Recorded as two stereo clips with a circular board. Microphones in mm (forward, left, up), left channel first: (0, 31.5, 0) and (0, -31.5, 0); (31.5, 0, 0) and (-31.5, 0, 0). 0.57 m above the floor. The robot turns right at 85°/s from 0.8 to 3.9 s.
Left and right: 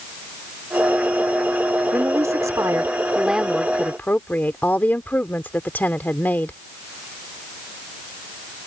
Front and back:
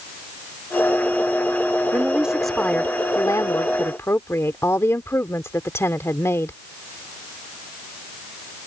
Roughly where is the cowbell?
No cowbell in this recording.